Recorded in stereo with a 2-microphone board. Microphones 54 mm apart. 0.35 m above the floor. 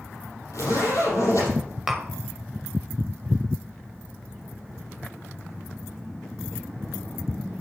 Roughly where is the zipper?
Left.